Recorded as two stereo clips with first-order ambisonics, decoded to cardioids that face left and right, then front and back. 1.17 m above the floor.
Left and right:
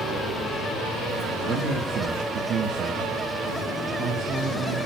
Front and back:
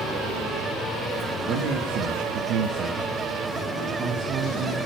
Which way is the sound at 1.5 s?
145° right.